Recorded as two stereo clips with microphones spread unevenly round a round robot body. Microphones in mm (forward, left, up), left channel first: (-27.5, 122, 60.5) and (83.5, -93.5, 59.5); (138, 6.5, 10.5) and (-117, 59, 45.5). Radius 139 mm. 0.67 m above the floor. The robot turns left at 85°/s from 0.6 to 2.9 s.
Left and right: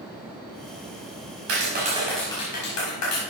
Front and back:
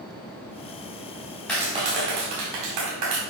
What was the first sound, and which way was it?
A clap, 95° right.